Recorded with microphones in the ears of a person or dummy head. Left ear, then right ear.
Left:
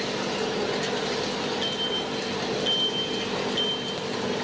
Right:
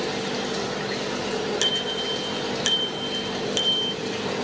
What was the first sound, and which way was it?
A bicycle bell, 70° right (ahead or behind).